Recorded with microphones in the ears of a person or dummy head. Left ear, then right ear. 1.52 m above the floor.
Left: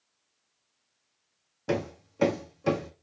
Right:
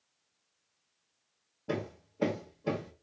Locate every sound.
1.7 s hammering: 75° left (ahead or behind), 2 m